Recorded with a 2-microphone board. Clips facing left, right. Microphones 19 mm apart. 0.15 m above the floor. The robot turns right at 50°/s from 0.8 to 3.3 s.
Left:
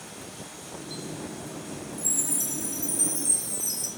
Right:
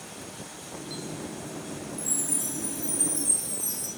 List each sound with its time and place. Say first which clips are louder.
2.0 s a chime: left 3 dB; 60° left, 1.6 m; by 3.9 s 125° left, 1.6 m